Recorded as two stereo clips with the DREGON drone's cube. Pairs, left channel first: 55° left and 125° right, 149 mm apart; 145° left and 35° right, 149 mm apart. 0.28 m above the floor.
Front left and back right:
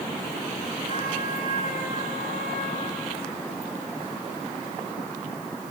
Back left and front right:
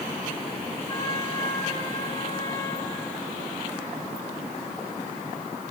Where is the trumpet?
90° left, 7 m.